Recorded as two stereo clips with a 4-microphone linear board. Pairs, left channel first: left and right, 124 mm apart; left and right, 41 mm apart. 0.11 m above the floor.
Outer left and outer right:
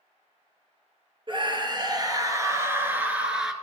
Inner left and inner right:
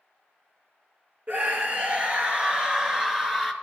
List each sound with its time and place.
1.3 s a scream: 40° right (ahead or behind), 2.5 m; by 3.5 s 5° right (ahead or behind), 2 m